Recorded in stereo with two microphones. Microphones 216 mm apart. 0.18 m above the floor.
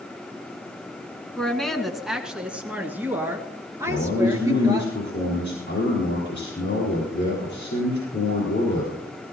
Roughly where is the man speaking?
Left.